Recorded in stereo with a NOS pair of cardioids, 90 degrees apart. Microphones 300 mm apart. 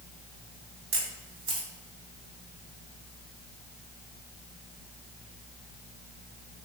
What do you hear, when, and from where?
0.9 s a camera shutter: 45° right, 1.4 m